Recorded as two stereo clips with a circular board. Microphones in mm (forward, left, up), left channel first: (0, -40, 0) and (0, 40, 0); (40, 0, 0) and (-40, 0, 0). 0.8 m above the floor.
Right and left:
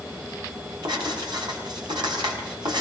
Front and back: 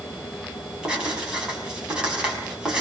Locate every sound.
0.8 s writing: 100° left, 5.5 m